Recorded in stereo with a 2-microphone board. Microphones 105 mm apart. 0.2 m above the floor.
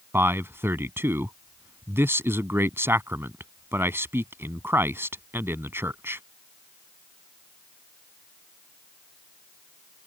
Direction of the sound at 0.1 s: 25° right (ahead or behind).